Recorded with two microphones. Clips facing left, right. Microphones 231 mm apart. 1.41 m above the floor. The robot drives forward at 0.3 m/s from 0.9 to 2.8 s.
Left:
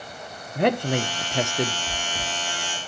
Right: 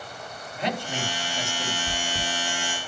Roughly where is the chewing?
Centre.